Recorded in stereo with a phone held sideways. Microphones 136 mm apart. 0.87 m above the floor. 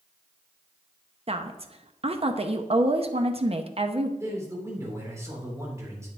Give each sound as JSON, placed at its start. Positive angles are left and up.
{"t": 1.3, "sound": "a woman speaking", "side_deg": -45, "distance_m": 0.8}
{"t": 4.2, "sound": "a man speaking", "side_deg": -20, "distance_m": 3.0}